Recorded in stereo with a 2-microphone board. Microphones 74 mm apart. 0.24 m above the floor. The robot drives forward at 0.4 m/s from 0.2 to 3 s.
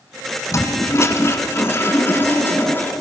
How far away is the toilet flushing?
About 1.6 m.